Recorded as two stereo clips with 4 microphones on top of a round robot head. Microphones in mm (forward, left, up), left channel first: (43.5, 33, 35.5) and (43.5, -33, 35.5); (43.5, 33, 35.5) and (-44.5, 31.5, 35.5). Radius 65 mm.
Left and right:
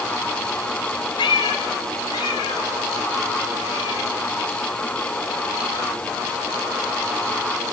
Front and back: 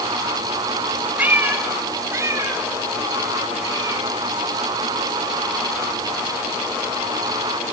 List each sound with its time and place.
1.2 s a cat meowing: 110° left, 2 m; by 7.7 s 140° left, 9 m